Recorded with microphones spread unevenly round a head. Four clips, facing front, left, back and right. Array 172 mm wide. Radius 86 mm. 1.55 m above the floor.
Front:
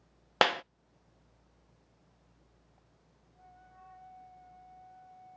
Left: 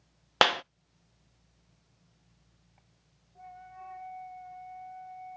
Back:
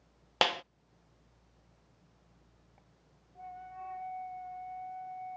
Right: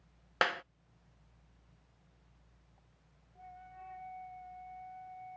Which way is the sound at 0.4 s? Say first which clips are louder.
Left 8 dB, front 3 dB; 45° left.